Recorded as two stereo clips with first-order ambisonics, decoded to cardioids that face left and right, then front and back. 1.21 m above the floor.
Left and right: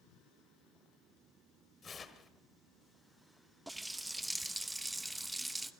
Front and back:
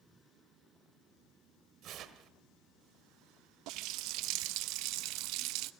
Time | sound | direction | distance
1.8 | tearing paper | 155° left | 1.3 m
3.7 | a running tap | 175° right | 0.6 m